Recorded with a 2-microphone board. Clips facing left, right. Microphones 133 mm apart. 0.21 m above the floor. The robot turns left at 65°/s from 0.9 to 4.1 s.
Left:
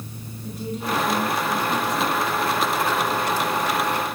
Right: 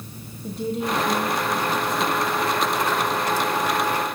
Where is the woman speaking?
145° right, 2.5 m; by 2.2 s 130° left, 2.5 m.